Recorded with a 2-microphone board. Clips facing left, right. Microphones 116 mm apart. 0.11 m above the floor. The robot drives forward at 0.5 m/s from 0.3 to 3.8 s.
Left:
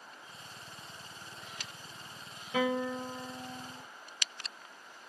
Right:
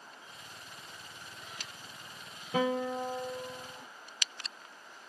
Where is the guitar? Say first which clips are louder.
Right 1 dB; 40° right (ahead or behind), 1.8 m; by 3.8 s 30° right (ahead or behind), 2.5 m.